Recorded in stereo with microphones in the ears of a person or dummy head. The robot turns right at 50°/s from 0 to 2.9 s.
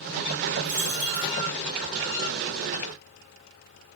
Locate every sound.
0.6 s a dropped coin: 125° right, 4 m; by 1.3 s 95° right, 4 m